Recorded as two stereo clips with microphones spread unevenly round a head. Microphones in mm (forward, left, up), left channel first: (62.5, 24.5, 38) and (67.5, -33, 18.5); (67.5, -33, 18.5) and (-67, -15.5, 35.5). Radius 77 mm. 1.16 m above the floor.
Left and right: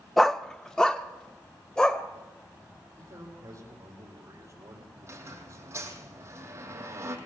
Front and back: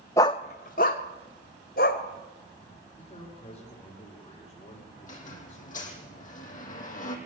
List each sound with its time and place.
0.2 s a dog barking: 60° left, 0.6 m; by 2.0 s 25° left, 2.5 m
3.0 s a man speaking: 50° right, 5.5 m
5.0 s a squeak: 40° right, 7.5 m